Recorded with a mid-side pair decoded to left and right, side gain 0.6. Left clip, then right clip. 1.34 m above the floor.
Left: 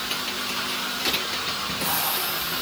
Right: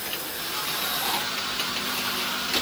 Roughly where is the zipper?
No zipper in this recording.